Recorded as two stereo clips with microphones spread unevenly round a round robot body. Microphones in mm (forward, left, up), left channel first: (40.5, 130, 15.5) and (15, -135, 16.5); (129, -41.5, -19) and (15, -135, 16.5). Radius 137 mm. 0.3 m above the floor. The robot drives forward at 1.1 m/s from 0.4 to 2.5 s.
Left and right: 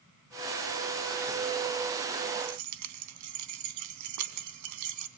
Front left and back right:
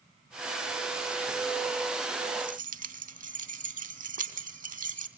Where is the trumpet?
I don't hear a trumpet.